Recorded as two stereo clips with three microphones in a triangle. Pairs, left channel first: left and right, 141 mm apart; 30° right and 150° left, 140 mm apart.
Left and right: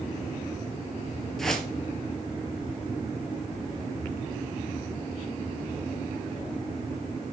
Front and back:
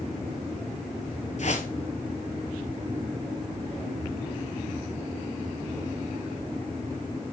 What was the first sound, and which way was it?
A whoosh, straight ahead.